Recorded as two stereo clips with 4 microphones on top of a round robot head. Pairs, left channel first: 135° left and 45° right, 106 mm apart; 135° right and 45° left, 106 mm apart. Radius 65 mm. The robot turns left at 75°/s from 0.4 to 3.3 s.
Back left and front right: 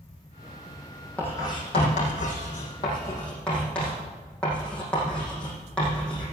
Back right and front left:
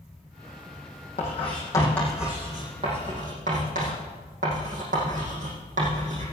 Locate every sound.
1.2 s writing: 150° right, 6 m; by 6.2 s 50° left, 6 m